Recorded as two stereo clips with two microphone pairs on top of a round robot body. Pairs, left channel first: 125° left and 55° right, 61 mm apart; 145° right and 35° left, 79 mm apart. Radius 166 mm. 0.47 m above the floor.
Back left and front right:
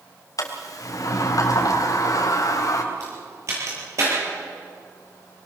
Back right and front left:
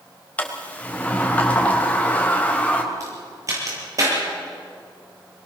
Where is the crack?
15° right, 9 m.